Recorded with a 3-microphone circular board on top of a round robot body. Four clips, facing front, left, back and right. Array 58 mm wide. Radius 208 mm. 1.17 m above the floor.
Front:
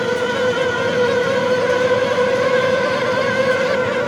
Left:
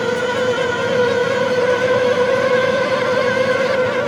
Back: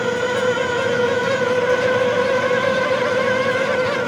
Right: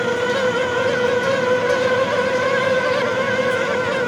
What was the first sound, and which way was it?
Only background noise.